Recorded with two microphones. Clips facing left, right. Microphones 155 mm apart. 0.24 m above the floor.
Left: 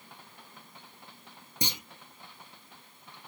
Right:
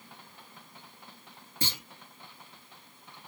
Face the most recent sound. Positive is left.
turn(degrees=20)  # may be behind; listen again after turning